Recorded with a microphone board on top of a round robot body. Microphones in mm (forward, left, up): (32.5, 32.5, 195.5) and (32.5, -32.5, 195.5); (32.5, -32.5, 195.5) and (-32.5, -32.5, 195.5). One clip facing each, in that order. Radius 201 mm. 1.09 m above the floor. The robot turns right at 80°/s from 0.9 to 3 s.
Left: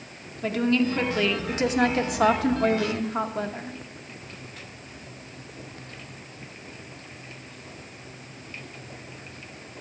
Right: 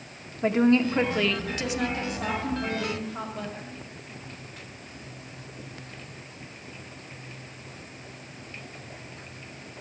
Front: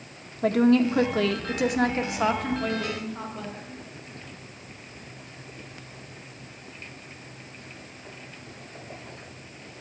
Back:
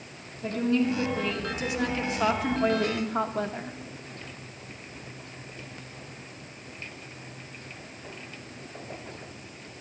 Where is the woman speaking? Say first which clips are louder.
Right 2 dB, front 6 dB; 25° right, 1.4 m; by 3.8 s 140° left, 1.4 m.